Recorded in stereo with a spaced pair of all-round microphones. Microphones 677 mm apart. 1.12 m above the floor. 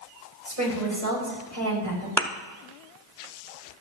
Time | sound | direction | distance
0.5 | a woman speaking | 25° right (ahead or behind) | 4.5 m
2.2 | a thud | 5° left (ahead or behind) | 0.7 m